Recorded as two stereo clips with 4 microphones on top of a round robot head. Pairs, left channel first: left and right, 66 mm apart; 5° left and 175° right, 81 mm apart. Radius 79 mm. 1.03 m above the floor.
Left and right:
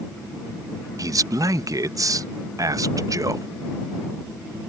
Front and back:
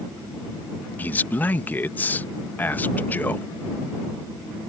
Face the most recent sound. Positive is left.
turn(degrees=-65)